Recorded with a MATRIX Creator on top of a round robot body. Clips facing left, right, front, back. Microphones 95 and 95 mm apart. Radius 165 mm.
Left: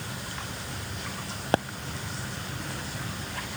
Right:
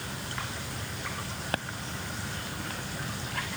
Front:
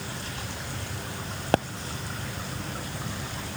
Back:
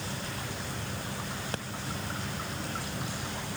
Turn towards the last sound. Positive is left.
turn(degrees=30)